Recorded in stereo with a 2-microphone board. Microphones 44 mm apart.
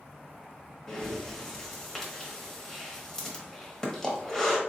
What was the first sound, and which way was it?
Breathing, 15° left (ahead or behind).